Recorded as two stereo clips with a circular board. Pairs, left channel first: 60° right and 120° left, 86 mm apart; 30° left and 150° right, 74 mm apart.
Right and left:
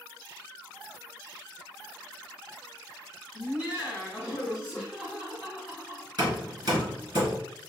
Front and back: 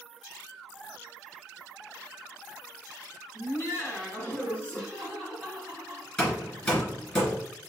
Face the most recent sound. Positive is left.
turn(degrees=95)